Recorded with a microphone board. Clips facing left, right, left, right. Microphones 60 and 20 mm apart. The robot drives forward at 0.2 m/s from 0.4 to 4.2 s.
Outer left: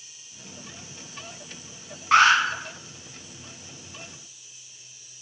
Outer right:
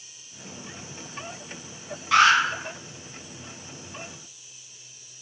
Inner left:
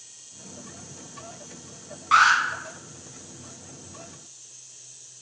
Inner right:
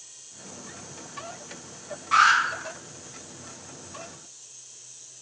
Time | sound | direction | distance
2.1 | an alarm | 35° left (ahead or behind) | 1.2 m